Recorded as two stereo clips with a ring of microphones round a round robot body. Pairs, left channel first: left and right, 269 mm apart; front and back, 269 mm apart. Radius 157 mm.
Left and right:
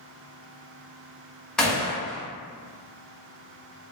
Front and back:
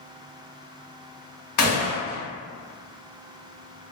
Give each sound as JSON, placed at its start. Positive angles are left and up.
{"t": 1.6, "sound": "a gunshot", "azimuth_deg": 0, "distance_m": 1.1}